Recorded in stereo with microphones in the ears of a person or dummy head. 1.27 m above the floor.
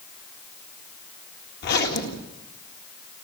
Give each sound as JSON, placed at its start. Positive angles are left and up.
{"t": 1.6, "sound": "a zipper", "side_deg": 55, "distance_m": 1.9}